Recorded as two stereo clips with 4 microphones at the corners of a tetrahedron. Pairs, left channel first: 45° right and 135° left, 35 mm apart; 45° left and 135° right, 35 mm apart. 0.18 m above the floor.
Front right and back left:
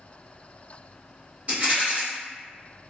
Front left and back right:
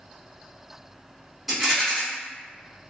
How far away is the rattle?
About 1.9 m.